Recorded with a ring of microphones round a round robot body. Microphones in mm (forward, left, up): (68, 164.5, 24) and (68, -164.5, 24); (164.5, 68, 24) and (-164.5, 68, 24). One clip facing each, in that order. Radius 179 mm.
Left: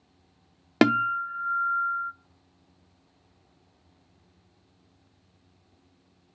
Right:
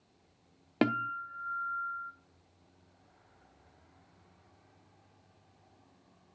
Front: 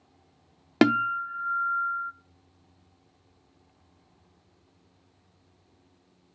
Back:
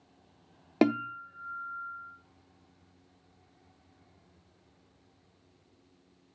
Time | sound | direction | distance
0.8 | a guitar | 60° left | 0.5 m